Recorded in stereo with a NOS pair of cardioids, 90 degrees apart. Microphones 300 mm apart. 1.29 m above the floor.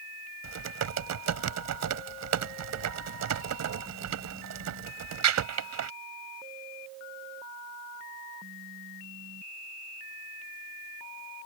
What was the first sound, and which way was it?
Typing on a keyboard, 60° right.